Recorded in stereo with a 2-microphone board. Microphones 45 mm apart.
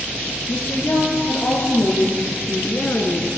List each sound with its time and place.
0.5 s a woman speaking: 80° left, 5.5 m; by 3.3 s 70° left (ahead or behind), 3.5 m